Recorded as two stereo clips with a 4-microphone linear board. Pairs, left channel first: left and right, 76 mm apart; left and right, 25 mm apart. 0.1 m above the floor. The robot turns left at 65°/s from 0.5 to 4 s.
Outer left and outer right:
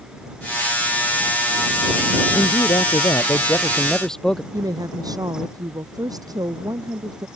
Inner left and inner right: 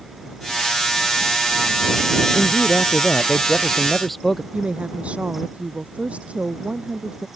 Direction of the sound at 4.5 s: 55° right (ahead or behind).